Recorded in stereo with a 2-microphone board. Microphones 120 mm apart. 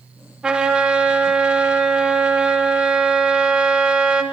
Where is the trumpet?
5° right (ahead or behind), 4 m.